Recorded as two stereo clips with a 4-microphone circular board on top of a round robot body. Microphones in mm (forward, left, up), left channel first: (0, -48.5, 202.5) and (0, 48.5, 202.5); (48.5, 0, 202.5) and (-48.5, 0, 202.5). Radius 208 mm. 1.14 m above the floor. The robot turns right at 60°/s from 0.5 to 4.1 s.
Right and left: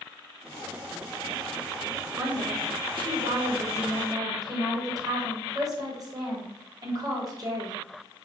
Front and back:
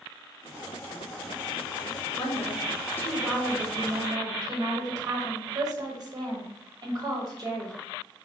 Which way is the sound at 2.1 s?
20° left.